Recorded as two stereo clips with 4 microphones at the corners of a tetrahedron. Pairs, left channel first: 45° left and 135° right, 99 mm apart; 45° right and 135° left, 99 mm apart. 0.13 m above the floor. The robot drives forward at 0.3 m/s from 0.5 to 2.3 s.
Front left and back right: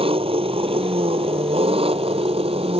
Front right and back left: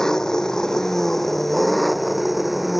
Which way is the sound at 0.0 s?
130° right.